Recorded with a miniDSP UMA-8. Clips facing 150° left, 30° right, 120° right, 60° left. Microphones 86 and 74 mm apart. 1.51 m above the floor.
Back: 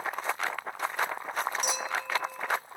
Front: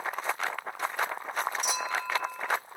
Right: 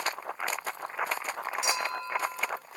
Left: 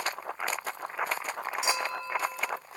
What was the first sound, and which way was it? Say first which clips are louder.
A clink: front 1 dB, left 1 dB; 135° left.